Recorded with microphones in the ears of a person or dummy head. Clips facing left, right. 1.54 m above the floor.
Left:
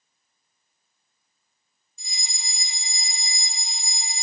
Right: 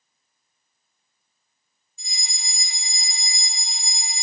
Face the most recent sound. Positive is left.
turn(degrees=75)  # may be behind; listen again after turning